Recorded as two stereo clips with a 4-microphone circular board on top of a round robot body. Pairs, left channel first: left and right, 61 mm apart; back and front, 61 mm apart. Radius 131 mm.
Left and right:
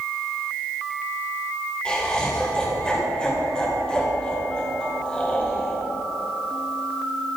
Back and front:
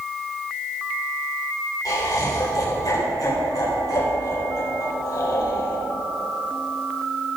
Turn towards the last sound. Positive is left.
turn(degrees=165)